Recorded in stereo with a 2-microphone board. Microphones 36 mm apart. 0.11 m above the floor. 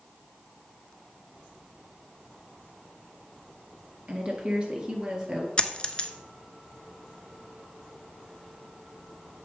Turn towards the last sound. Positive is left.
turn(degrees=30)  # may be behind; listen again after turning